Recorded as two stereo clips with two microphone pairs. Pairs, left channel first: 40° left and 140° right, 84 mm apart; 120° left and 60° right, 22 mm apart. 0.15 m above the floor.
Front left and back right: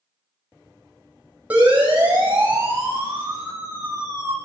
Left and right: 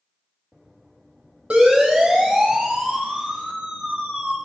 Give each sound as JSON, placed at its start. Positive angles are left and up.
{"t": 1.5, "sound": "a siren", "azimuth_deg": -70, "distance_m": 8.5}